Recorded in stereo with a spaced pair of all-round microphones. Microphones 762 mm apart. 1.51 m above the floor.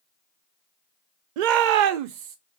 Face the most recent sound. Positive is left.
turn(degrees=-75)  # may be behind; listen again after turning